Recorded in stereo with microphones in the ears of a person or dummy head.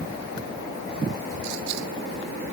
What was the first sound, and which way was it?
Only background noise.